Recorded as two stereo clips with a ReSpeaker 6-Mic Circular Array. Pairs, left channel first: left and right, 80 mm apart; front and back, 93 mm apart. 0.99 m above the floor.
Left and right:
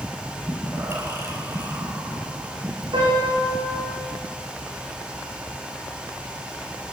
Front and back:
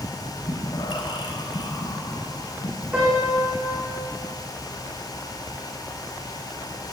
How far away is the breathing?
About 5 m.